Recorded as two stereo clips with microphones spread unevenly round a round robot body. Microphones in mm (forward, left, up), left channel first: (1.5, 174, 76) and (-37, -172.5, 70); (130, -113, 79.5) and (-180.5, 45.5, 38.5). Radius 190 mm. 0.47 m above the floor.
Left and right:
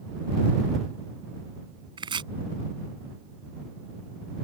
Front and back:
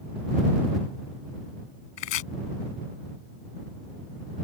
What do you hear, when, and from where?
2.0 s chopping: 20° right